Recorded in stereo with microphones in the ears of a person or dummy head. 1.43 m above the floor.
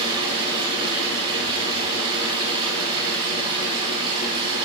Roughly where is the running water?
Right.